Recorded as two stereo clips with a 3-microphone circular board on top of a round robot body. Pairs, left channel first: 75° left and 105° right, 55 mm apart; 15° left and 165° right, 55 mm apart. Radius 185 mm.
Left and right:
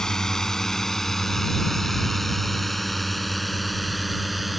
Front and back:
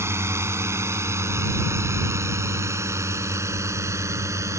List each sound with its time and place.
0.0 s a drone: 155° left; by 4.6 s 165° left